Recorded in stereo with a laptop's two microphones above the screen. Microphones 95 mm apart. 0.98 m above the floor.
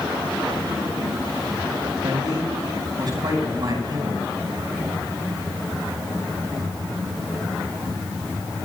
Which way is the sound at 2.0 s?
50° right (ahead or behind).